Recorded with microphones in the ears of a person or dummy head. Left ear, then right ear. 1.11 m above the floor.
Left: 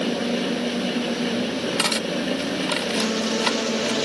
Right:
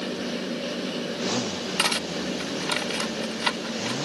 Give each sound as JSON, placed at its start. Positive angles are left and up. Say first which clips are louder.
{"t": 1.8, "sound": "cutlery clinking", "louder": "even", "side_deg": 0}